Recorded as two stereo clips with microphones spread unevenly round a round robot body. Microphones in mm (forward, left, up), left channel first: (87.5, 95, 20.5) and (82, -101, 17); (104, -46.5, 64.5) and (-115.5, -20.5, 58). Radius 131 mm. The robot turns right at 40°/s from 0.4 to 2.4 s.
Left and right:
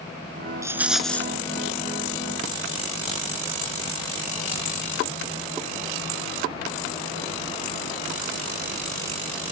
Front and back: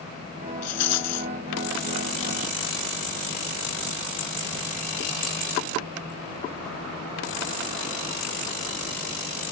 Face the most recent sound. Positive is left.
turn(degrees=55)